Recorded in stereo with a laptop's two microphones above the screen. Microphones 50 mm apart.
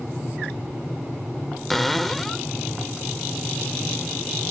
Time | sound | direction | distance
1.7 | a cupboard door | 5° left (ahead or behind) | ?